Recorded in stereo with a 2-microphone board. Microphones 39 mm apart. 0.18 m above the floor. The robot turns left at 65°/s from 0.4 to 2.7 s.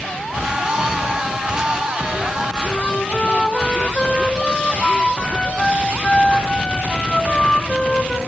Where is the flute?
15° left (ahead or behind), 0.6 m.